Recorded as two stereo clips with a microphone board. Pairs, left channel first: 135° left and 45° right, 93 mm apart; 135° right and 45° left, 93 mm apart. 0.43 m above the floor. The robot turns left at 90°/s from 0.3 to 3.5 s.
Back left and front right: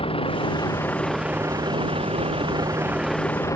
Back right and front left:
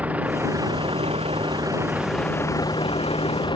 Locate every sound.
0.0 s a vehicle: 120° left; by 3.6 s 170° right